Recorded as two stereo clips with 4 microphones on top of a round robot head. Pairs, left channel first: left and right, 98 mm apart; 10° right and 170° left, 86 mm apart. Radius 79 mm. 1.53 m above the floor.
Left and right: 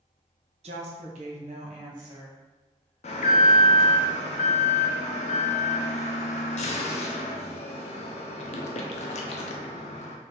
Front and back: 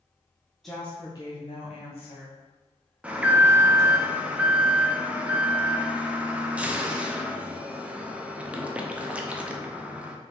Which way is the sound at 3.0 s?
95° left.